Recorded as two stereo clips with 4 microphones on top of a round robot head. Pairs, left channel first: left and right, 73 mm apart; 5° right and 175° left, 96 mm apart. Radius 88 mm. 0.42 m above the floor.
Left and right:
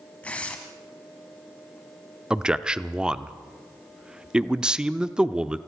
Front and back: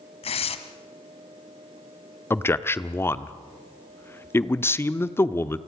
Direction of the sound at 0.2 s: 15° left.